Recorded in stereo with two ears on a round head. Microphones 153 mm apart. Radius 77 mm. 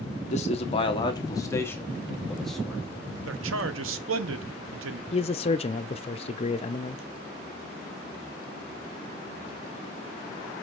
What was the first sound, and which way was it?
A man speaking, 40° left (ahead or behind).